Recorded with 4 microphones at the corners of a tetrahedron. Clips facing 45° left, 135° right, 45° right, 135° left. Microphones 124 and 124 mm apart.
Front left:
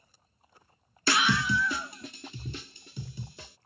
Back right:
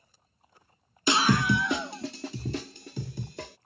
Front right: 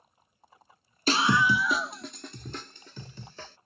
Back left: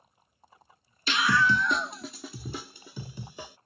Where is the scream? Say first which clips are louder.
Back right 3 dB, front right 1 dB; 65° right; by 3.6 s 150° right.